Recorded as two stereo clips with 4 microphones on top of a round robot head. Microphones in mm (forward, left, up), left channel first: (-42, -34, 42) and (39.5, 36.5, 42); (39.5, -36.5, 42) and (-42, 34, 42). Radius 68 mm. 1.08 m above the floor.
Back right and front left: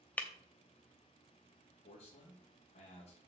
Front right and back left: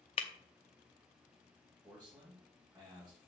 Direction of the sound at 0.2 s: 65° right.